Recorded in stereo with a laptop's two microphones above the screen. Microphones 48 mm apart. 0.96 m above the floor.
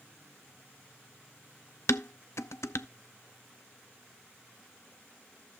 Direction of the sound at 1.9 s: 75° left (ahead or behind).